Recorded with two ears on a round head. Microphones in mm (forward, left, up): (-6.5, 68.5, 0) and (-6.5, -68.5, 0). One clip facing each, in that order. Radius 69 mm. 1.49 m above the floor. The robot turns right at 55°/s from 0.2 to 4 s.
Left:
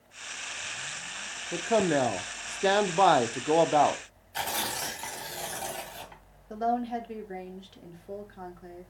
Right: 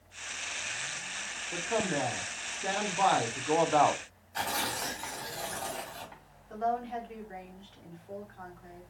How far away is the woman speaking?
About 1.2 m.